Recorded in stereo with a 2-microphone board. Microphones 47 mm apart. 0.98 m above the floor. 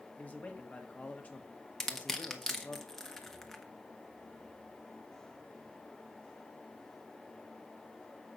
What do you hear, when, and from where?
0.2 s a man speaking: 30° left (ahead or behind), 1.4 m
1.8 s crushing: 10° left (ahead or behind), 1.2 m